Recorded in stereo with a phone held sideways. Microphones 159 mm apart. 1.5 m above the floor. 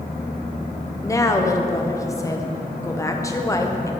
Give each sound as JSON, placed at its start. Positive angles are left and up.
{"t": 1.0, "sound": "a woman speaking", "side_deg": 20, "distance_m": 0.8}